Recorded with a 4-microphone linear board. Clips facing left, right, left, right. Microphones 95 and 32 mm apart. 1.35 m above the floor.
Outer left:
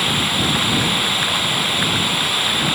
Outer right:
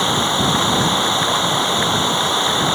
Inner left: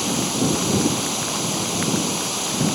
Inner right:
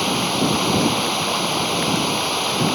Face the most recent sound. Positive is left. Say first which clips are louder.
# outer right 4 dB, inner right 3 dB
turn(degrees=-25)  # may be behind; listen again after turning